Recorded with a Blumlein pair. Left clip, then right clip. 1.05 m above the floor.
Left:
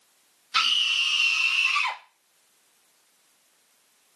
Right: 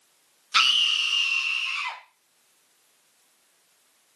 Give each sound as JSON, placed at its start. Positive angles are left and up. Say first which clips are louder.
{"t": 0.5, "sound": "a scream", "louder": "right 2 dB", "azimuth_deg": -20, "distance_m": 0.7}